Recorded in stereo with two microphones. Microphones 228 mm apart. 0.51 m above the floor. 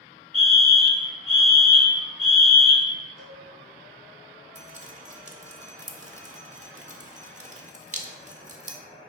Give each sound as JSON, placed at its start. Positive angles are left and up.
{"t": 0.3, "sound": "a fire alarm", "side_deg": -25, "distance_m": 2.5}
{"t": 3.2, "sound": "a cowbell", "side_deg": -65, "distance_m": 3.0}
{"t": 4.5, "sound": "dripping", "side_deg": -30, "distance_m": 0.9}